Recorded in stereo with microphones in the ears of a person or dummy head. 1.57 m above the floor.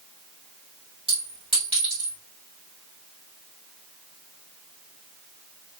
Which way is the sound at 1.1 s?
25° right (ahead or behind).